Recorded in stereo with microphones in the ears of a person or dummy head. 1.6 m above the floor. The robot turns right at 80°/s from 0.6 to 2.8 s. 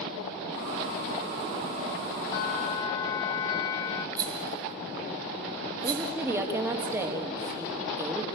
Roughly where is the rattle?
Right.